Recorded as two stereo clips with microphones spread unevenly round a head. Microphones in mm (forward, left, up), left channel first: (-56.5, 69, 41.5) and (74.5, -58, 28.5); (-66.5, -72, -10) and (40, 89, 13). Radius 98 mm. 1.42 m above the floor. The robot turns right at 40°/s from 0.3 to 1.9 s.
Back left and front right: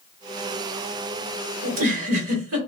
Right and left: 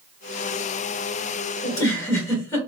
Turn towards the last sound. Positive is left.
turn(degrees=-45)